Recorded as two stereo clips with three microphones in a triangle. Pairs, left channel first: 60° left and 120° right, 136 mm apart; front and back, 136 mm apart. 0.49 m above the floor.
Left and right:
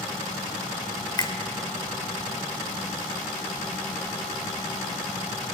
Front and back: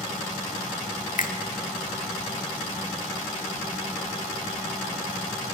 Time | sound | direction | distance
1.2 | a finger snap | 5° left | 1.5 m